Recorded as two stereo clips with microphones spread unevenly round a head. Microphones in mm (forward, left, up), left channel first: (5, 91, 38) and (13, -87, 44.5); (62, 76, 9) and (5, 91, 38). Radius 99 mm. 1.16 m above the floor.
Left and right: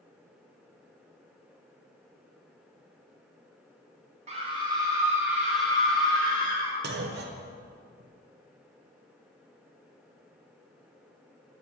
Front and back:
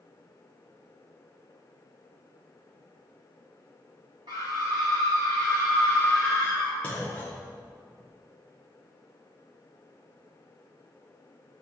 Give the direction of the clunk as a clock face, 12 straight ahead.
2 o'clock.